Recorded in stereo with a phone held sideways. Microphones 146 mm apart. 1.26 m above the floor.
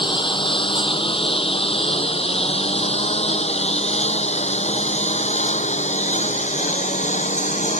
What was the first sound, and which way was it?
A lawn mower, 35° left (ahead or behind).